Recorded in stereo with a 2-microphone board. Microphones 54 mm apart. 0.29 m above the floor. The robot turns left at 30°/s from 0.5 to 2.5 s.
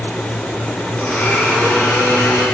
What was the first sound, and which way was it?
A blender, 155° left.